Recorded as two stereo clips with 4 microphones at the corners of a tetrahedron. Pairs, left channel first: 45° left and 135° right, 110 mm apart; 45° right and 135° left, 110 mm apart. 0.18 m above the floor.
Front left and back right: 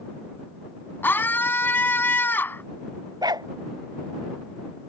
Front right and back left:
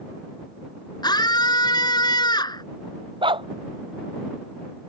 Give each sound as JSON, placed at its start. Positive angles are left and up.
{"t": 1.0, "sound": "a scream", "azimuth_deg": -20}
{"t": 3.2, "sound": "a dog barking", "azimuth_deg": 175}